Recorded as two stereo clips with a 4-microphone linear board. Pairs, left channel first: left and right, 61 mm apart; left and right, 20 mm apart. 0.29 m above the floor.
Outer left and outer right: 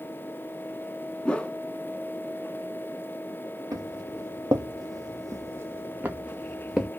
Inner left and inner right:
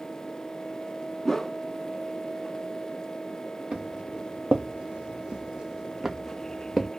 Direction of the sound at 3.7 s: 65° right (ahead or behind).